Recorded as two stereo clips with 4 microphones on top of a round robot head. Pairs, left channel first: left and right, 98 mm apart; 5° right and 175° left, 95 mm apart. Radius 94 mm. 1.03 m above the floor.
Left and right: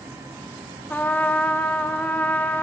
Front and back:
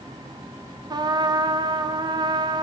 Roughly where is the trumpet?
Behind.